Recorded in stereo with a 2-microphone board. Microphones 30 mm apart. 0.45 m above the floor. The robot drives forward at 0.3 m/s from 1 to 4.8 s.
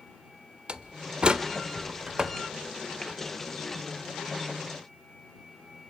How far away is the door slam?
About 0.6 m.